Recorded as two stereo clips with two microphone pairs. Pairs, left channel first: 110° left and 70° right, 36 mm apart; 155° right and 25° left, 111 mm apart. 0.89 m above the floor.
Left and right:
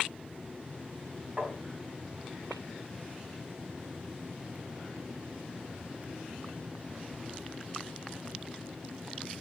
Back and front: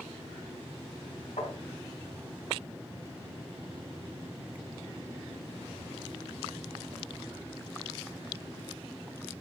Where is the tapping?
140° right, 5 m.